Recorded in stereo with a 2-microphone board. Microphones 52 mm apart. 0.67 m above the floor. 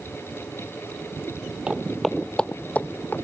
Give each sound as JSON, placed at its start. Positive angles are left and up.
{"t": 1.7, "sound": "footsteps", "side_deg": -20}